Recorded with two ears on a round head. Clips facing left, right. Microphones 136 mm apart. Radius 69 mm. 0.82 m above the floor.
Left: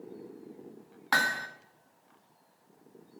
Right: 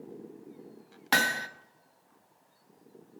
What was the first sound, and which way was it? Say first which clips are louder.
Hammering: right 1 dB; 25° right (ahead or behind).